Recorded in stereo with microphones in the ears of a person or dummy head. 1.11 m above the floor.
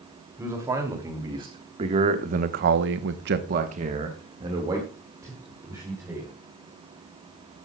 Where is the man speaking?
15° right (ahead or behind), 3 m.